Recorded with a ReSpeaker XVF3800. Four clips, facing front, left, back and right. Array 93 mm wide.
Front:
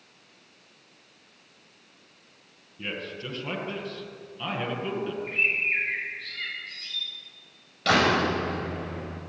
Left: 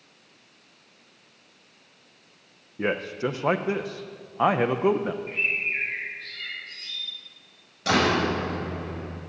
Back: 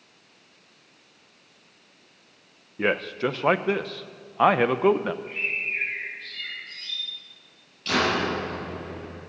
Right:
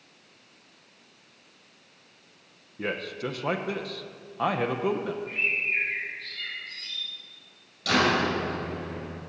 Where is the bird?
15° left, 7.5 m.